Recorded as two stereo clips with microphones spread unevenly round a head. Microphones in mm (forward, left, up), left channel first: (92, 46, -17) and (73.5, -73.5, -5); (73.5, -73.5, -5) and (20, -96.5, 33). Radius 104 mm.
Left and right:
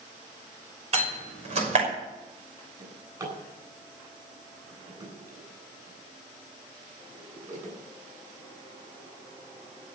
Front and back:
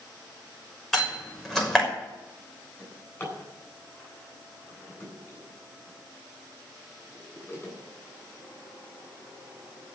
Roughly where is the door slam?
Right.